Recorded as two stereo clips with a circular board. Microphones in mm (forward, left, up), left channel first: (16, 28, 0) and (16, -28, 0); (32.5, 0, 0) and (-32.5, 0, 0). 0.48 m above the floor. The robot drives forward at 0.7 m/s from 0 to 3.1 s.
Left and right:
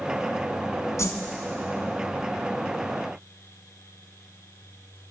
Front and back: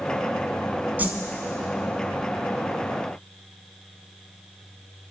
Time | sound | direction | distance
1.0 | a whoosh | 115° left | 1.6 m